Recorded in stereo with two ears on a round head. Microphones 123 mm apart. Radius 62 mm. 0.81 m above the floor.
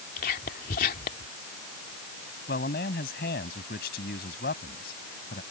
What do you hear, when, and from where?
0.2 s whispering: 70° left (ahead or behind)
2.5 s a man speaking: 80° left